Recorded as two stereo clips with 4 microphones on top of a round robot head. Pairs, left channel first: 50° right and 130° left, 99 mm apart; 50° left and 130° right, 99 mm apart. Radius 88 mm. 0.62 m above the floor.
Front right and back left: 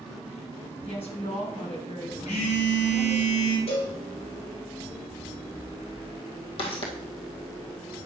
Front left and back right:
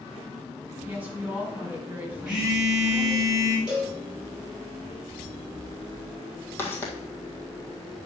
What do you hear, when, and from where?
0.8 s a woman speaking: 55° right, 4.5 m
2.3 s a phone buzzing: 50° right, 3 m
3.7 s a cowbell: 50° right, 3.5 m
6.6 s footsteps: 20° right, 1.7 m